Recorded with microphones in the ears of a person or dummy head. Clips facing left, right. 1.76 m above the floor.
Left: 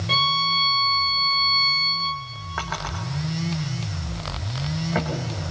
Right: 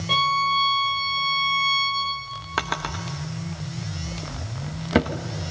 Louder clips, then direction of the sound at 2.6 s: Right 2 dB; 40° right (ahead or behind).